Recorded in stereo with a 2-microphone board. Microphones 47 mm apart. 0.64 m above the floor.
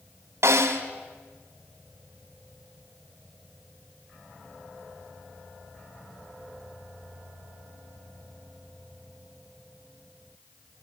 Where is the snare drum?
70° right (ahead or behind), 2 m.